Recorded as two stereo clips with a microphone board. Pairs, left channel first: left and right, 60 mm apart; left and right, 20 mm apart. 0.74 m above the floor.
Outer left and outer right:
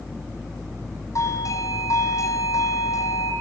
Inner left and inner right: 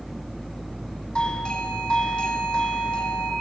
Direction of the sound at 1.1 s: 60° left (ahead or behind).